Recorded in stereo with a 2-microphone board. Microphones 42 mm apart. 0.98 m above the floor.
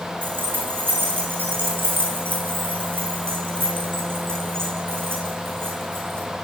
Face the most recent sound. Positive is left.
turn(degrees=-65)  # may be behind; listen again after turning